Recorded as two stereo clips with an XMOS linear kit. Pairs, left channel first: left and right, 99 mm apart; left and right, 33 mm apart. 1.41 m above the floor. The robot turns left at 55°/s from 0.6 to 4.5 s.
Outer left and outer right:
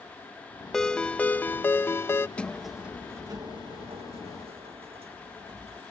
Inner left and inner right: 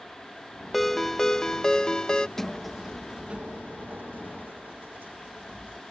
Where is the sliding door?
15° left; by 5.8 s 105° right.